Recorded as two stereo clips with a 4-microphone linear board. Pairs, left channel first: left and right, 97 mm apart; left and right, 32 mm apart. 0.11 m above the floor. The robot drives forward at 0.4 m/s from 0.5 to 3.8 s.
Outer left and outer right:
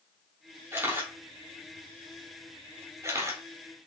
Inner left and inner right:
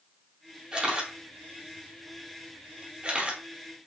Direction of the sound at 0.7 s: 20° right (ahead or behind).